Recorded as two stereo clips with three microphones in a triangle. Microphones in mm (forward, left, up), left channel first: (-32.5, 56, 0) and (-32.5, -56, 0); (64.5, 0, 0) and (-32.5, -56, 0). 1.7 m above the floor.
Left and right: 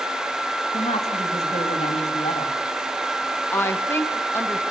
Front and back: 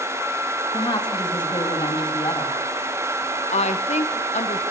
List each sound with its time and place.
0.7 s a woman speaking: 80° left, 3.5 m
3.5 s a woman speaking: 20° left, 1.9 m